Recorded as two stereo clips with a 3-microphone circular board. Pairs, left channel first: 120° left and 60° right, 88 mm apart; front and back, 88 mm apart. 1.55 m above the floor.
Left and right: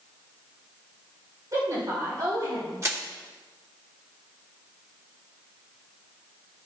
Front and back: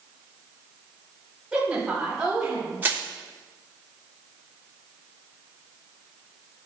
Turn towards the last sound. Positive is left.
turn(degrees=-110)